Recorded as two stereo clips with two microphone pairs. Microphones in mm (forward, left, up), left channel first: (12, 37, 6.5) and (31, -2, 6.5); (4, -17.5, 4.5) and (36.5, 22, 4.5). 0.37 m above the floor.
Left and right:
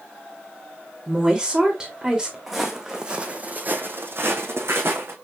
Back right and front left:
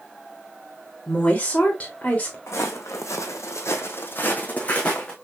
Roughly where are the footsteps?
Behind right.